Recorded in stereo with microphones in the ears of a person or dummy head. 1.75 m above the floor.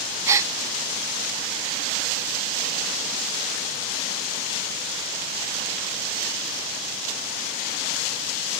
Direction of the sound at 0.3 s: 15° right (ahead or behind).